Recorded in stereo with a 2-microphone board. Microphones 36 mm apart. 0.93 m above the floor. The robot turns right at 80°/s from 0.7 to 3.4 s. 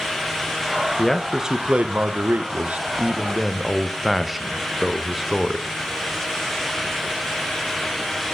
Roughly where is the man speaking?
Behind.